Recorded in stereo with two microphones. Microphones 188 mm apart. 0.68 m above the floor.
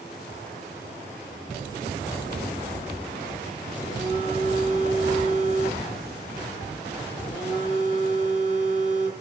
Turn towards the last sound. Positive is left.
turn(degrees=25)  # may be behind; listen again after turning